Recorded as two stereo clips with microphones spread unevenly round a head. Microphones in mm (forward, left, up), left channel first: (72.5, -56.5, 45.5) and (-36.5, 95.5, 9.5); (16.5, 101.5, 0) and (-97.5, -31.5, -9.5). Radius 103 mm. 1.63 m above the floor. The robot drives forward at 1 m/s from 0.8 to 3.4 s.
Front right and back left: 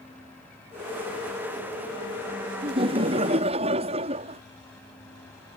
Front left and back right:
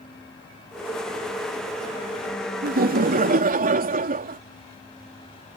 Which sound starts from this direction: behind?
Laughter, at 2.6 s.